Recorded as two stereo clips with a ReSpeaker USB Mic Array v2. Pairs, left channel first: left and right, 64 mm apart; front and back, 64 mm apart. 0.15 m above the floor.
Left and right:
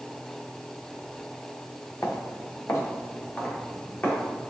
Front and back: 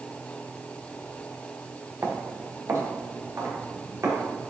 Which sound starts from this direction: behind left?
Footsteps, at 2.0 s.